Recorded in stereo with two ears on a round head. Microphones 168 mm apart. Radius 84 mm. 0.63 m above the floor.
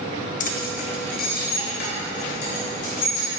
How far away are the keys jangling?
About 0.6 m.